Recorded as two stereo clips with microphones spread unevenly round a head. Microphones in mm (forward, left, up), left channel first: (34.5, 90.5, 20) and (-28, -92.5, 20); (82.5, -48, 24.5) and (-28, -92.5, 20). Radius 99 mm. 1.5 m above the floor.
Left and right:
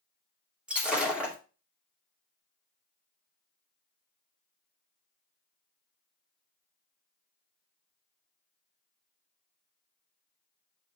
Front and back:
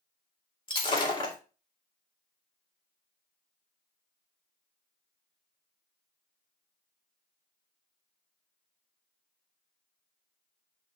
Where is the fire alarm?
I don't hear a fire alarm.